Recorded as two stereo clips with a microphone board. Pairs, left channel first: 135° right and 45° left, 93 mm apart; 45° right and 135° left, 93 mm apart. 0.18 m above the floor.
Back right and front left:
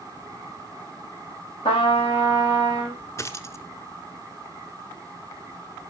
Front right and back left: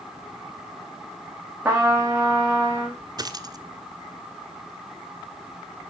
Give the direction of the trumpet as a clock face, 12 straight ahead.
5 o'clock.